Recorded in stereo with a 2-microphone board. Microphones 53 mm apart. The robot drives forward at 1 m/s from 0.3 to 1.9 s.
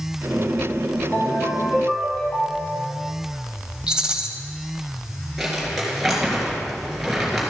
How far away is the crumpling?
About 3.5 m.